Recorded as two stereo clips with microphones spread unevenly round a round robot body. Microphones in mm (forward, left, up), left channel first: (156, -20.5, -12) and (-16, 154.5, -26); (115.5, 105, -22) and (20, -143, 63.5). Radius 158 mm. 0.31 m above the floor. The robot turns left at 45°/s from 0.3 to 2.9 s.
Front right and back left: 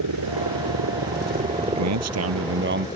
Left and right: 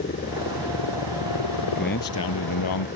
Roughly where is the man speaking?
Behind left.